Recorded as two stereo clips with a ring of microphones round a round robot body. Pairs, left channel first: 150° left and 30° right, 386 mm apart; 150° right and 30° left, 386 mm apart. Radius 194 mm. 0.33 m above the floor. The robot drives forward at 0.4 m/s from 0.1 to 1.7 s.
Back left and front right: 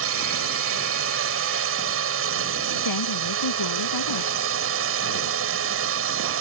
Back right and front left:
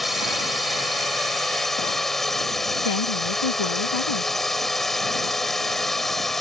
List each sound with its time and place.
0.0 s a drone: 60° right
2.8 s a woman speaking: 175° right